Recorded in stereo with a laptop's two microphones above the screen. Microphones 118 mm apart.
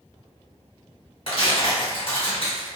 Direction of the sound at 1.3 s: 55° left (ahead or behind).